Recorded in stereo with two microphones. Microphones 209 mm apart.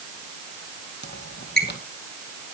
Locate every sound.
1.0 s a squeak: 50° left (ahead or behind), 1.9 m